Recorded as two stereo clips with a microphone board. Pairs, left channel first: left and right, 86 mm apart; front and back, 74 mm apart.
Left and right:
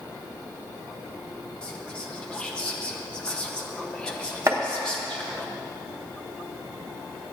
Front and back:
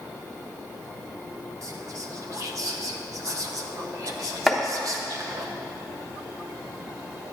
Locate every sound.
1.6 s whispering: 165° left, 0.9 m
4.5 s chopping: 95° right, 0.9 m